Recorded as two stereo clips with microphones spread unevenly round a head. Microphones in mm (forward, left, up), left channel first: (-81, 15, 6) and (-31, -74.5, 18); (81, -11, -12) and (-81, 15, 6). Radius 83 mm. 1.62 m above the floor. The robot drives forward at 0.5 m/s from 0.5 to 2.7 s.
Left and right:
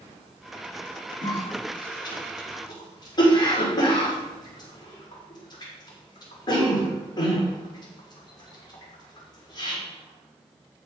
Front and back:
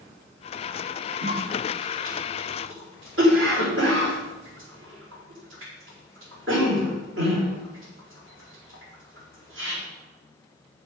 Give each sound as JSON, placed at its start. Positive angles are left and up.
{"t": 1.2, "sound": "a cough", "azimuth_deg": 165, "distance_m": 4.5}